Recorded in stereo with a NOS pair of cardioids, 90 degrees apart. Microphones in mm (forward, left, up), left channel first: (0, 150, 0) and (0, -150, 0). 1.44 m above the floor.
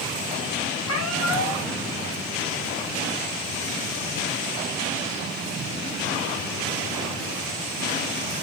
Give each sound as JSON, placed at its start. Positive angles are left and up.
{"t": 0.9, "sound": "a cat meowing", "azimuth_deg": 55, "distance_m": 4.5}